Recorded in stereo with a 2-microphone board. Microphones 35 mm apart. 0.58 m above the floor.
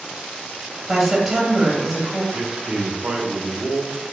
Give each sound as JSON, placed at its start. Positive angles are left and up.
{"t": 0.9, "sound": "a woman speaking", "side_deg": 0, "distance_m": 0.9}
{"t": 2.3, "sound": "a man speaking", "side_deg": -25, "distance_m": 0.8}